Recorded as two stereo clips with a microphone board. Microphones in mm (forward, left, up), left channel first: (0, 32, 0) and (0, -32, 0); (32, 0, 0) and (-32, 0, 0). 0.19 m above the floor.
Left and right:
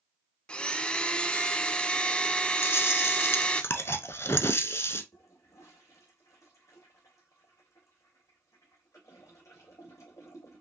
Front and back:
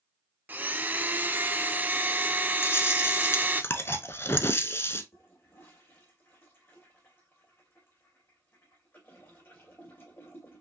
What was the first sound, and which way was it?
A blender, 150° left.